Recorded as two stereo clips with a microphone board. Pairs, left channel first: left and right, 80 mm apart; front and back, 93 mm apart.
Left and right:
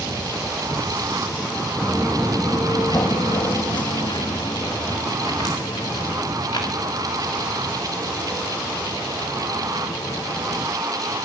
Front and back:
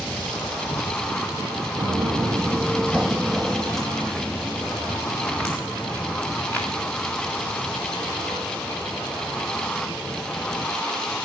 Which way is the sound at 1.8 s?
170° left.